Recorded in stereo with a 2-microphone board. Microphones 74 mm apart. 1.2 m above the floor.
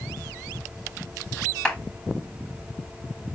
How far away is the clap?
About 3 m.